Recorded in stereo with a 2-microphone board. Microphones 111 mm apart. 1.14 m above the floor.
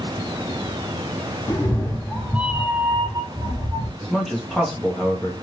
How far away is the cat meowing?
About 0.7 m.